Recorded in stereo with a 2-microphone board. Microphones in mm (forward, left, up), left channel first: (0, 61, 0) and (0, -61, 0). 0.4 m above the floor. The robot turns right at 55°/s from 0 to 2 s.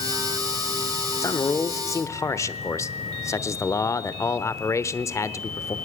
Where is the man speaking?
25° left (ahead or behind), 0.9 m.